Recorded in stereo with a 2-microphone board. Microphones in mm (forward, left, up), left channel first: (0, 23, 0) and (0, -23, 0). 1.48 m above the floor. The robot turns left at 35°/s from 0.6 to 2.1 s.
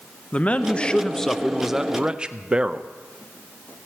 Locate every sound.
0.3 s a man speaking: 30° left, 0.5 m; by 2.9 s 20° right, 0.5 m